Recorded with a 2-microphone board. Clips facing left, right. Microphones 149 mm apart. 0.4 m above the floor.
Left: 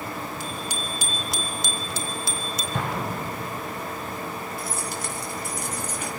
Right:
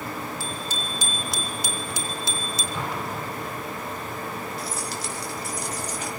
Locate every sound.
0.4 s a bicycle bell: 20° left (ahead or behind), 3.5 m; by 2.6 s 30° right (ahead or behind), 3 m
2.7 s an explosion: 55° left (ahead or behind), 8 m
4.6 s keys jangling: 55° left (ahead or behind), 4 m